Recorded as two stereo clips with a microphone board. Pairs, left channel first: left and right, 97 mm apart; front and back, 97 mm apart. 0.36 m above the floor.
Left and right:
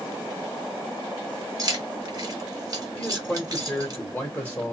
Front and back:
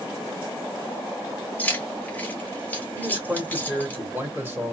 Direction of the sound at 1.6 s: 65° right.